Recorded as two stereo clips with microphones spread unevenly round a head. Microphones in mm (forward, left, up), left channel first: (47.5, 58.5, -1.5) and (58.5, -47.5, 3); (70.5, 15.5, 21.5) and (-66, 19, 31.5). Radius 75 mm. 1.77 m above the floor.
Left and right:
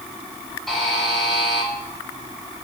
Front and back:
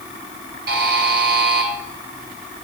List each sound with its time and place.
0.7 s a buzzer: 175° right, 2.0 m